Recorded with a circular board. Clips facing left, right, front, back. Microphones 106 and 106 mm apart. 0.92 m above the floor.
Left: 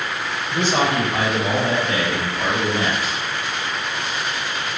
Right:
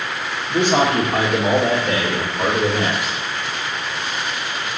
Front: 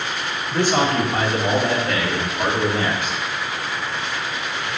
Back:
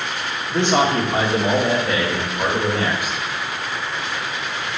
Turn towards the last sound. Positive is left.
turn(degrees=-100)